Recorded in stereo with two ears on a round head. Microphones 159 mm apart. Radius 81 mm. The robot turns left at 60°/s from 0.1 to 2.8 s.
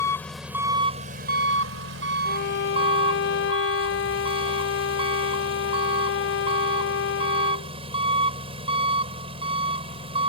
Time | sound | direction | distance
0.0 | an engine running | 15° left | ?
2.2 | a violin | 120° left | ?